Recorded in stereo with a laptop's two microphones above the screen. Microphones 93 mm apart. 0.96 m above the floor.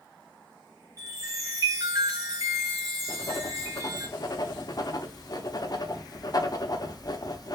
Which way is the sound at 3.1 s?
45° left (ahead or behind).